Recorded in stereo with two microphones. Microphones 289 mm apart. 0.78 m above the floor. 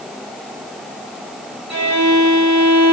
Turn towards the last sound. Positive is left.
turn(degrees=-70)  # may be behind; listen again after turning